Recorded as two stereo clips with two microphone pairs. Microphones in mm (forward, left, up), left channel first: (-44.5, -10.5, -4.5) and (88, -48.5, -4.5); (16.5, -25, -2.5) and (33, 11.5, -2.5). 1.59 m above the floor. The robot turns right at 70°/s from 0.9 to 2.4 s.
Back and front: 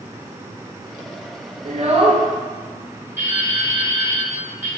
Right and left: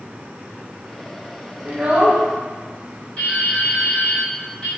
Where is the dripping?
75° right, 1.6 m.